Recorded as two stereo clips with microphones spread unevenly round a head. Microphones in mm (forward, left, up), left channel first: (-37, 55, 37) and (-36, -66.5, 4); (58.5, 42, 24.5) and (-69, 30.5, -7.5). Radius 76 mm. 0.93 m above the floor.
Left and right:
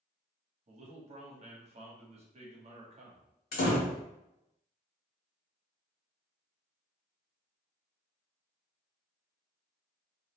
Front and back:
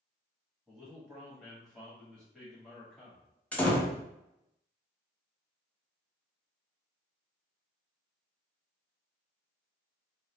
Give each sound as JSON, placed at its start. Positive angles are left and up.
{"t": 0.7, "sound": "a man speaking", "azimuth_deg": -85, "distance_m": 0.9}
{"t": 3.5, "sound": "a door slam", "azimuth_deg": 85, "distance_m": 0.7}